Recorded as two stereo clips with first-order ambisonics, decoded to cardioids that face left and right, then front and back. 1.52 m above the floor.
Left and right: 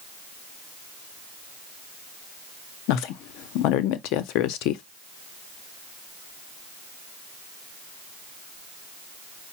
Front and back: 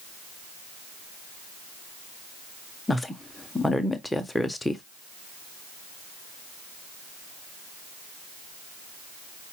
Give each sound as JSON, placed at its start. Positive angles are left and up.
{"t": 2.9, "sound": "a woman speaking", "azimuth_deg": 85, "distance_m": 0.6}